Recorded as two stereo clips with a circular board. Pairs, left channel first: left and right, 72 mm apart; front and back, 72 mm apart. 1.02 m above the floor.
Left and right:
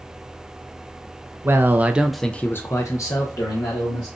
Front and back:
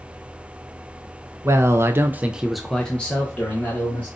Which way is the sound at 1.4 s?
140° right.